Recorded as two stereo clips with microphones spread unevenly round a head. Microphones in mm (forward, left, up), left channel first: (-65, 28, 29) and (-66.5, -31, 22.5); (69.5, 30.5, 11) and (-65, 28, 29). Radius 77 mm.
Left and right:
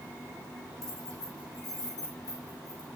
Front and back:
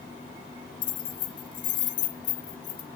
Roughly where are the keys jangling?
Ahead left.